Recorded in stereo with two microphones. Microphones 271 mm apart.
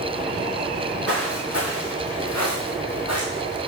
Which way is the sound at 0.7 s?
50° left (ahead or behind).